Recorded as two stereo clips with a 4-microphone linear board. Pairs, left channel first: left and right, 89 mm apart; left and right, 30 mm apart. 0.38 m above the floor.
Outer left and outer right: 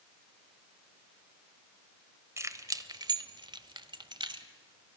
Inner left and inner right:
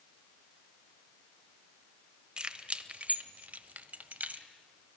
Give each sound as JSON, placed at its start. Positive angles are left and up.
{"t": 2.4, "sound": "keys jangling", "side_deg": -30, "distance_m": 1.1}